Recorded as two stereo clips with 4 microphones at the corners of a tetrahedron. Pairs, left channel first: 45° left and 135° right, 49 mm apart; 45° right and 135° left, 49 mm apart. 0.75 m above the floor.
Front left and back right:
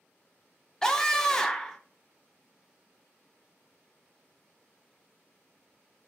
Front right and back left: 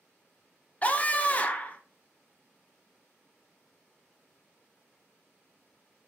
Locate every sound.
0.8 s a scream: 20° right, 0.5 m